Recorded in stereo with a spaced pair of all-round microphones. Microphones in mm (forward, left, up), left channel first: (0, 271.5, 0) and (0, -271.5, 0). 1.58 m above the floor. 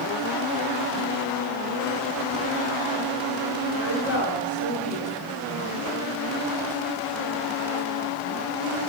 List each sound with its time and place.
3.8 s a woman speaking: 55° left (ahead or behind), 5 m